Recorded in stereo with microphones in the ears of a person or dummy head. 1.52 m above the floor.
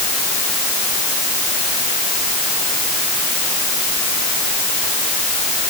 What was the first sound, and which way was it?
Only background noise.